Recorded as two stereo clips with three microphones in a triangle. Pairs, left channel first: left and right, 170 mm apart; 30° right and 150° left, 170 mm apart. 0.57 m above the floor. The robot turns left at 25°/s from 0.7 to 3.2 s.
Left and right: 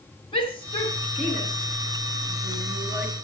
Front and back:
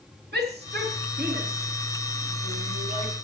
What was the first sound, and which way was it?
A shout, 150° left.